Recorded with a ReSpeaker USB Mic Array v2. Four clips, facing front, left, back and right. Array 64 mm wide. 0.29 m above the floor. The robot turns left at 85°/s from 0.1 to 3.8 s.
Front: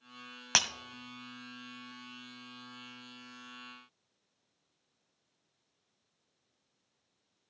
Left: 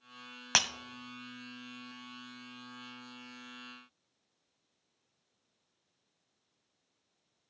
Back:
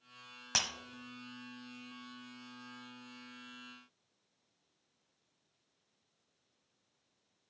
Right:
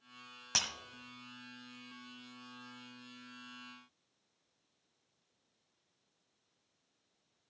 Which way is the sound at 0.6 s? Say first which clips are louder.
Left 8 dB, front 6 dB; 55° left.